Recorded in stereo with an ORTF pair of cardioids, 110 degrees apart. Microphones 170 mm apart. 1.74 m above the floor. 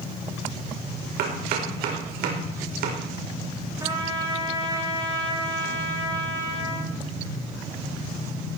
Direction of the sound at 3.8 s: 20° right.